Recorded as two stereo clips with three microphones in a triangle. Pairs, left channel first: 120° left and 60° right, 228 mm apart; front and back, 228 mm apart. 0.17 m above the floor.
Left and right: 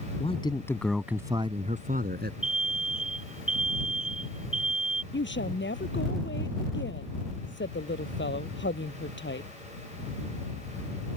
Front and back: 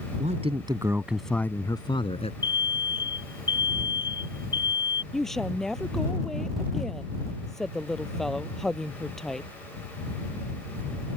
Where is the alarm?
135° left.